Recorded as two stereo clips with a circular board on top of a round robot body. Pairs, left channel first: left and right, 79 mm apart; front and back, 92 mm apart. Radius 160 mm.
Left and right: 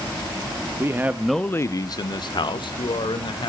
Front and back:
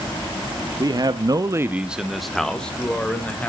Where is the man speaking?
140° right, 1.2 m; by 3.5 s 75° left, 3 m.